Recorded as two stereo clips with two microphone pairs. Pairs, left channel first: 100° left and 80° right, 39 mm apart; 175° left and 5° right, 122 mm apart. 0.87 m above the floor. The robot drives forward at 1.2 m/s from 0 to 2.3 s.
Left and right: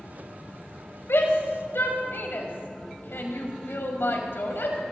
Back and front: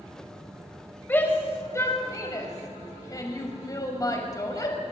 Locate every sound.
1.1 s a shout: 105° left, 5 m; by 4.8 s 120° left, 5.5 m